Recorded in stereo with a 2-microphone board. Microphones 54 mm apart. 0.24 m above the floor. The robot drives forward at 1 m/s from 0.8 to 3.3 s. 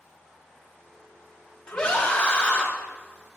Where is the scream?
15° left (ahead or behind), 1.4 m; by 2.7 s 20° left (ahead or behind), 1.1 m.